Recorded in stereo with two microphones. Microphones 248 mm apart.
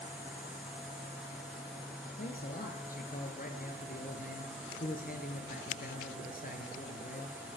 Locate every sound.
2.2 s a man speaking: 35° left (ahead or behind), 2.0 m